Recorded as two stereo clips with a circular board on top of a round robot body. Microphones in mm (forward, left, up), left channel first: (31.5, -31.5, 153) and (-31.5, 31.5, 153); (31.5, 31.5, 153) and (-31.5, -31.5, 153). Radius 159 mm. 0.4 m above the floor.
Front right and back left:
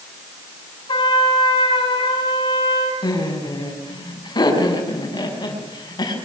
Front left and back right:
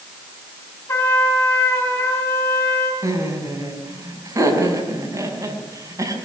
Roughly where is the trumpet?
Ahead.